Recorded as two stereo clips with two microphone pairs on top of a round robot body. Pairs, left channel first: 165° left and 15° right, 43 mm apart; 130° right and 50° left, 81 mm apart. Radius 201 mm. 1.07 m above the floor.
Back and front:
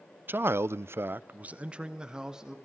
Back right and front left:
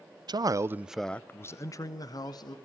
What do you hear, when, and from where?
0.3 s a man speaking: 20° left, 1.0 m; by 2.6 s 95° right, 2 m